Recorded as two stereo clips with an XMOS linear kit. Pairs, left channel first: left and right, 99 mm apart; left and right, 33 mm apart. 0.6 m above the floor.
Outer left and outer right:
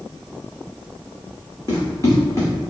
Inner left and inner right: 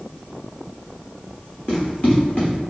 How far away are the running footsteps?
About 1.7 m.